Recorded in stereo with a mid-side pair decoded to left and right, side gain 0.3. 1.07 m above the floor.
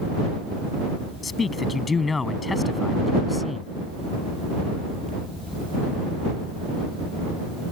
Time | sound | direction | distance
1.2 | a man speaking | 55° left | ?